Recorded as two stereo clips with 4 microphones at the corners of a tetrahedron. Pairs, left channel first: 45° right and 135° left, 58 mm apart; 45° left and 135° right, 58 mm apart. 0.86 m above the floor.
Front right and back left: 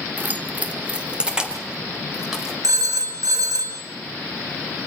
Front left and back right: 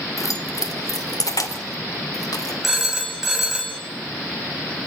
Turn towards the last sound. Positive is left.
turn(degrees=140)